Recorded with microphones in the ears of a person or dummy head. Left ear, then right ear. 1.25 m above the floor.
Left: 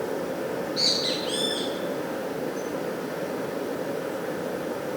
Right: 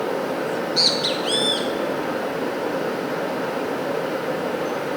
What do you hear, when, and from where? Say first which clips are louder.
0.5 s a bird: right 5 dB; 30° right (ahead or behind), 2.0 m